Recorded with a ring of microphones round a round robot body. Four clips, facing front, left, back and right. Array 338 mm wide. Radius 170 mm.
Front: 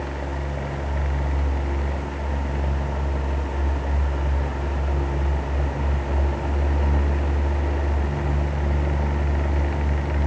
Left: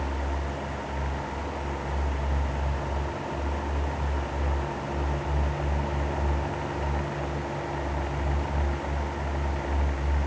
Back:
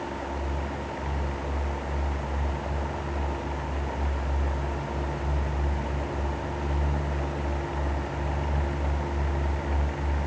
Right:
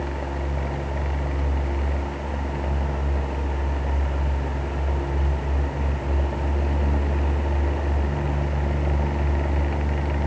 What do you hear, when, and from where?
Only background noise.